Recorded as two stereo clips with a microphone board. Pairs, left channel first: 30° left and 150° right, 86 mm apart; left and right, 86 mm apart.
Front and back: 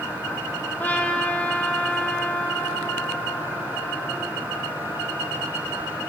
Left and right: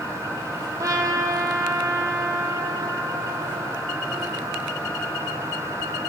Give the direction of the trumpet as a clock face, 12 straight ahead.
1 o'clock.